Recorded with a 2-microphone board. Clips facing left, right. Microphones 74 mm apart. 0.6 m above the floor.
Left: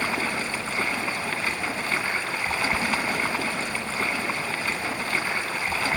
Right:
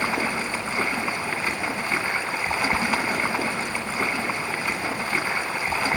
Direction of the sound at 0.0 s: 15° right (ahead or behind).